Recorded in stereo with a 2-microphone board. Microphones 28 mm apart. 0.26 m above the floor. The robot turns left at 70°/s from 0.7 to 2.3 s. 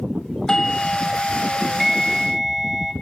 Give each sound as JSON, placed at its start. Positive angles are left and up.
{"t": 0.5, "sound": "a doorbell", "side_deg": 20, "distance_m": 2.0}